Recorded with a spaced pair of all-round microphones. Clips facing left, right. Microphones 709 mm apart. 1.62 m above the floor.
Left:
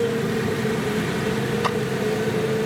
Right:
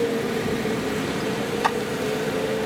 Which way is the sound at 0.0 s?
45° left (ahead or behind).